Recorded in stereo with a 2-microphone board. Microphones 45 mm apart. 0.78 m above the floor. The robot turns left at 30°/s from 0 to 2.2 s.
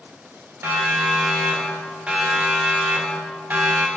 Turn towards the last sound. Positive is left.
turn(degrees=-50)  # may be behind; listen again after turning